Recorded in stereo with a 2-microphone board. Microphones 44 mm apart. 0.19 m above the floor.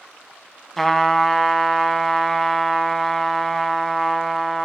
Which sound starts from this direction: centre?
A trumpet, at 0.8 s.